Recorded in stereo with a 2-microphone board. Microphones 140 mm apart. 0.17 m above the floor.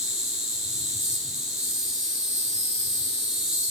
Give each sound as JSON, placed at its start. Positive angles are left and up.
{"t": 0.0, "sound": "an insect", "side_deg": -5, "distance_m": 4.0}